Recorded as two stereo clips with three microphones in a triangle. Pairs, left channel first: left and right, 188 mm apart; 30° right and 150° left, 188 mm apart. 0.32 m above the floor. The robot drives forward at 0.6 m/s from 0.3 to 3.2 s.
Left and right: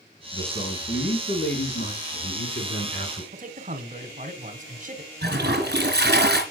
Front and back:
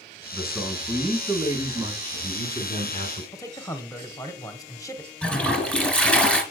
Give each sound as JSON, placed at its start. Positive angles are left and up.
{"t": 0.3, "sound": "a man speaking", "azimuth_deg": 60, "distance_m": 2.5}
{"t": 3.3, "sound": "a man speaking", "azimuth_deg": -95, "distance_m": 1.1}
{"t": 5.2, "sound": "a toilet flushing", "azimuth_deg": -115, "distance_m": 1.9}